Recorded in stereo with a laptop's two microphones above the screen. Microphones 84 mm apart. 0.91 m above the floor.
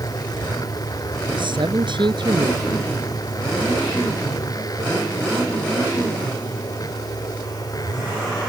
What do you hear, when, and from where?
0.0 s a machine running: 50° left (ahead or behind)
1.4 s a man speaking: 70° right (ahead or behind)